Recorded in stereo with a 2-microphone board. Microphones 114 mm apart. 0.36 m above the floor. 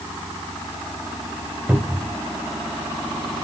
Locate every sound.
1.7 s a cupboard door: 15° right (ahead or behind), 1.6 m